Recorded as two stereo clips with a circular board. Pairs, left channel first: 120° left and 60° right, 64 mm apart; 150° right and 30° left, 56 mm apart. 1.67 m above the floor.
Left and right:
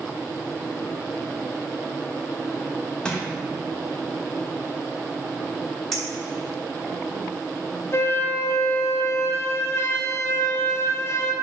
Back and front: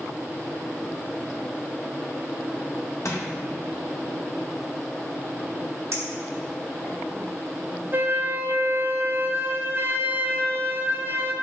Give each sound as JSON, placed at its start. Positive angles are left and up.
{"t": 3.0, "sound": "crushing", "azimuth_deg": -165, "distance_m": 1.4}
{"t": 5.9, "sound": "a clink", "azimuth_deg": 35, "distance_m": 2.5}
{"t": 7.9, "sound": "a flute", "azimuth_deg": 75, "distance_m": 0.8}